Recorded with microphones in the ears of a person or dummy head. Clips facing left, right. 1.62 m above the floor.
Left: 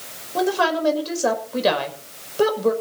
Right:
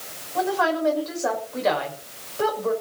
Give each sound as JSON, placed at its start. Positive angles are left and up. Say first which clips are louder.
{"t": 0.3, "sound": "a woman speaking", "louder": "left 2 dB", "side_deg": 45, "distance_m": 5.5}